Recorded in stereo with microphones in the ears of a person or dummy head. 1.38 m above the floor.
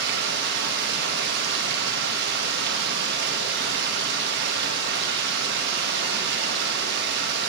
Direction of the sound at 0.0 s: 65° right (ahead or behind).